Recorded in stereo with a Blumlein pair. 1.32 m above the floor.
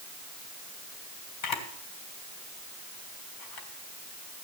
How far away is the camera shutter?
About 3 m.